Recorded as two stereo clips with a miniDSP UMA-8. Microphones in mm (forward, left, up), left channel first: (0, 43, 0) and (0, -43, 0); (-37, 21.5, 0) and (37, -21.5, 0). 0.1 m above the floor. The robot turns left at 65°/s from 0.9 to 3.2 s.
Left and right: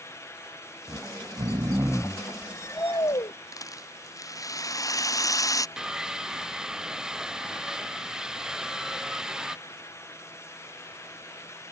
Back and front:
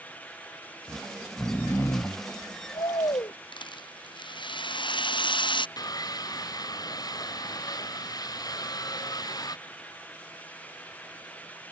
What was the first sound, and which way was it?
Snoring, 95° right.